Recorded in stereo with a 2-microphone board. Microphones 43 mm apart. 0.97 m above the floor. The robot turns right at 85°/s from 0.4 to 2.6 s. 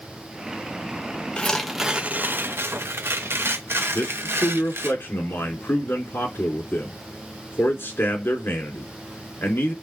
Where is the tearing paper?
155° left, 0.8 m; by 4.9 s 100° right, 0.8 m.